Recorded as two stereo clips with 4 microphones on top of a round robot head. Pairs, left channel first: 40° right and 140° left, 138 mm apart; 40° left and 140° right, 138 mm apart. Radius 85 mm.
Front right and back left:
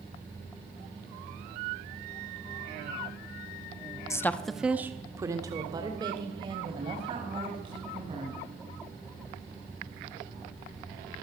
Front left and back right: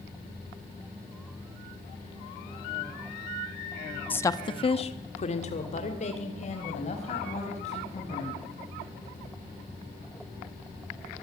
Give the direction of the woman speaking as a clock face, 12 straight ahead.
1 o'clock.